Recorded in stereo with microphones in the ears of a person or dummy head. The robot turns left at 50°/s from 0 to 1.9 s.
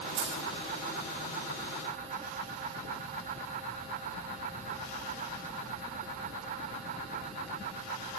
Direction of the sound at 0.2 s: 80° right.